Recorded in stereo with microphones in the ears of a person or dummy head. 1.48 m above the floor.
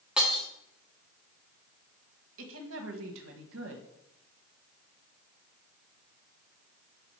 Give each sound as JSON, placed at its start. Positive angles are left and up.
{"t": 0.2, "sound": "breaking glass", "side_deg": -5, "distance_m": 1.4}
{"t": 2.4, "sound": "a woman speaking", "side_deg": -85, "distance_m": 1.4}